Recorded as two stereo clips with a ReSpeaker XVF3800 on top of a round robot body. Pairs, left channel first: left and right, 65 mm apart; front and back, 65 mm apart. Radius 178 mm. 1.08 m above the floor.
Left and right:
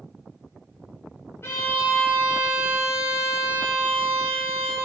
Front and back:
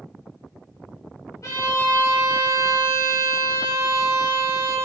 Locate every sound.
1.4 s a violin: 50° left, 1.0 m